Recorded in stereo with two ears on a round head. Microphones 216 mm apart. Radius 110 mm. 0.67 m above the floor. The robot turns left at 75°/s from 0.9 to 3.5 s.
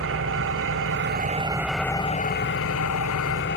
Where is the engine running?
115° right, 1.0 m; by 3.6 s 50° left, 1.0 m.